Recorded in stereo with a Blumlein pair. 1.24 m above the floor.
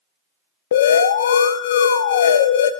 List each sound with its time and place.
0.7 s an alarm: 60° left, 0.5 m